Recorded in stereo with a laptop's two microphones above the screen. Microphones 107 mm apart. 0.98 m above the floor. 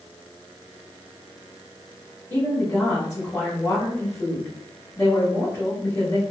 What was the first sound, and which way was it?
A woman speaking, 25° left (ahead or behind).